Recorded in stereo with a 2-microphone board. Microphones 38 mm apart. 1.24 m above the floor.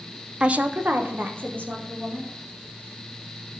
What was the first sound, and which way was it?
A woman speaking, 25° right (ahead or behind).